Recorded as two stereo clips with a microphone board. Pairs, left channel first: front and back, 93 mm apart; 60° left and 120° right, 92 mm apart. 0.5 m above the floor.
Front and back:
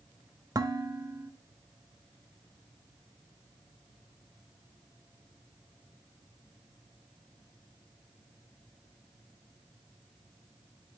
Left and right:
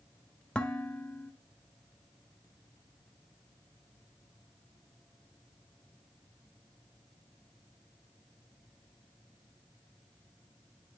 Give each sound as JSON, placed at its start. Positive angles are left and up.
{"t": 0.6, "sound": "dishes clattering", "azimuth_deg": 135, "distance_m": 1.2}